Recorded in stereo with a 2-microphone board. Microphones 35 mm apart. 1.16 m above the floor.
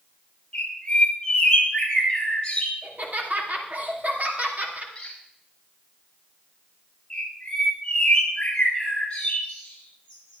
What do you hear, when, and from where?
0.5 s a bird: 25° left (ahead or behind), 3.5 m
2.8 s laughter: 50° right (ahead or behind), 2.5 m
5.0 s a squeak: 25° left (ahead or behind), 3.5 m
7.1 s a bird: 20° left (ahead or behind), 8 m